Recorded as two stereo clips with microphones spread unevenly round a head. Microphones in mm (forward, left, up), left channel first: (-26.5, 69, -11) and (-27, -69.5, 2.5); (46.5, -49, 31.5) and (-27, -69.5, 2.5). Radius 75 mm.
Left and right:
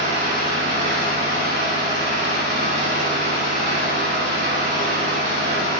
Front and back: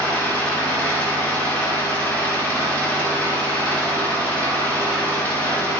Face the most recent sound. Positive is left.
turn(degrees=-50)